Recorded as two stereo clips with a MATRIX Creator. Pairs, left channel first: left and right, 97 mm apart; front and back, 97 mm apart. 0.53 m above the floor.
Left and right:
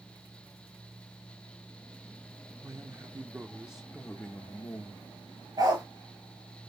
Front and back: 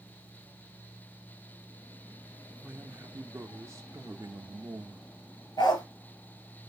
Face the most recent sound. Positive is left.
turn(degrees=-40)